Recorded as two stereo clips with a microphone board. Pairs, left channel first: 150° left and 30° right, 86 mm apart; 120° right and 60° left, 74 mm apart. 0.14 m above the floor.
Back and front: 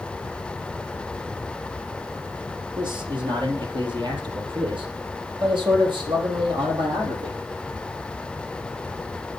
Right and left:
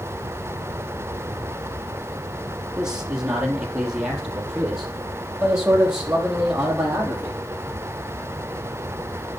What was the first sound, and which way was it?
A man speaking, 20° right.